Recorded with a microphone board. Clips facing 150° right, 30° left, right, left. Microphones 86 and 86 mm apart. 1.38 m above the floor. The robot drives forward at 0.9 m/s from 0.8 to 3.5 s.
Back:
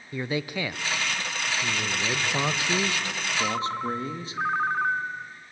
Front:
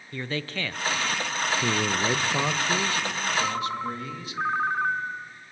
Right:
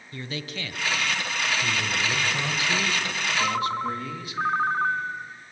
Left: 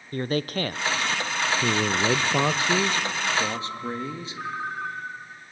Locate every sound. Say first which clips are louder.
0.1 s a man speaking: back 3 dB, left 9 dB; 130° left, 0.6 m; by 1.5 s 155° left, 1.1 m
1.6 s a man speaking: front 4 dB, left 4 dB; 70° left, 0.9 m; by 4.4 s 150° left, 1.6 m
3.4 s a ringtone: back 2 dB, right 3 dB; 55° right, 1.0 m; by 5.3 s 65° right, 1.0 m